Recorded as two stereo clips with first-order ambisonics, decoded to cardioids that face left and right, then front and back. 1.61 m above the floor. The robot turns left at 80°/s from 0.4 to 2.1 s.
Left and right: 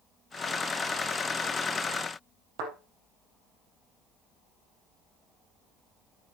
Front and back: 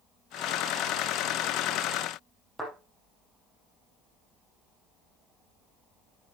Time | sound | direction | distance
2.6 | a thud | 85° right | 5 m